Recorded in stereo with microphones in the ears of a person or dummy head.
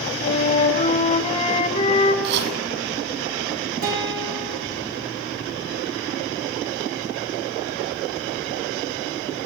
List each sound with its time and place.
0.2 s a flute: 35° left (ahead or behind), 4.5 m
2.2 s chopping: 70° right (ahead or behind), 8 m
3.8 s a guitar: 55° right (ahead or behind), 9.5 m